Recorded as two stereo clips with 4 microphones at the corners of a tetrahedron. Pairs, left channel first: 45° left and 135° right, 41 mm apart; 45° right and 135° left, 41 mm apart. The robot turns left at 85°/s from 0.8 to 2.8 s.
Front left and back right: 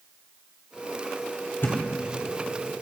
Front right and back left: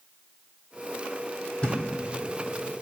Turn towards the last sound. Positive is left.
turn(degrees=-80)